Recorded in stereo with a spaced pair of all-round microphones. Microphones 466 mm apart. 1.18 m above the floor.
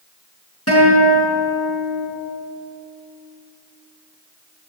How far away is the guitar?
About 5.5 m.